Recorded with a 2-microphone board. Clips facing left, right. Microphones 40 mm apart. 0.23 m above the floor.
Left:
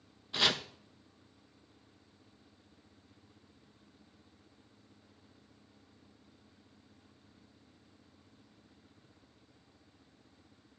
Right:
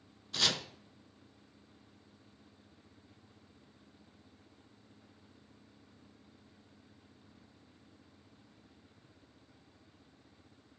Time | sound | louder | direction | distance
0.3 | chopping | left 3 dB | 20° left (ahead or behind) | 0.5 m